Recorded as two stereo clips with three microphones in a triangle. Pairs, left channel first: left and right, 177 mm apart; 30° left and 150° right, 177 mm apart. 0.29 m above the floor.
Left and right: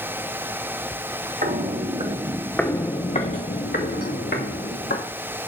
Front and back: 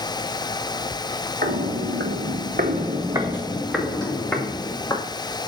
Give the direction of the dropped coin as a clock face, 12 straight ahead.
No dropped coin in this recording.